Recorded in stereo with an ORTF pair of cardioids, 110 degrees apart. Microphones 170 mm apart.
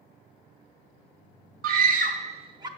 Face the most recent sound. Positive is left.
turn(degrees=-25)